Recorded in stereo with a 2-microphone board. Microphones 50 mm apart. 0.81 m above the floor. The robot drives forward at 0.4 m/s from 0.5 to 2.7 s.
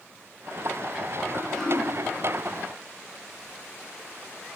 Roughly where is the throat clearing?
Centre.